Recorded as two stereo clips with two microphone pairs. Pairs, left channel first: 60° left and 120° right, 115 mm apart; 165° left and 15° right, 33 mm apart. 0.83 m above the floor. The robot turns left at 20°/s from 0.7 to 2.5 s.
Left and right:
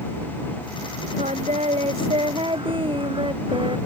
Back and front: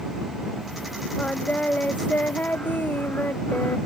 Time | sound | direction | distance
1.2 | singing | 140° right | ?